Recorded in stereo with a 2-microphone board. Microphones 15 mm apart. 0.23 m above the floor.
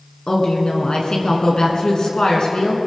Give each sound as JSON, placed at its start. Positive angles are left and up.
{"t": 0.3, "sound": "a woman speaking", "side_deg": 60, "distance_m": 3.0}